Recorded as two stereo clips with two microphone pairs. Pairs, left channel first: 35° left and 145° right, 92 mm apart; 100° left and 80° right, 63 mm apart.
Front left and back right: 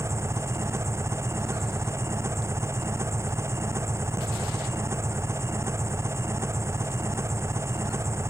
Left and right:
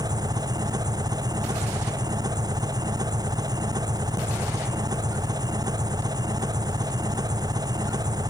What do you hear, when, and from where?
0.0 s an engine running: 85° right